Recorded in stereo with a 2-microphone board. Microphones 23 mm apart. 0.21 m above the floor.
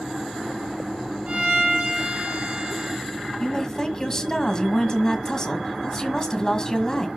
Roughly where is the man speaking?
Left.